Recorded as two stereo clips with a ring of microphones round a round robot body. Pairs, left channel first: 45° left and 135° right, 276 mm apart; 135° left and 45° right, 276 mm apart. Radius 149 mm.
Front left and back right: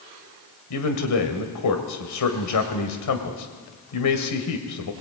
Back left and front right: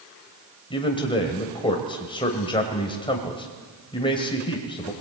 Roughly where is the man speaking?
Ahead left.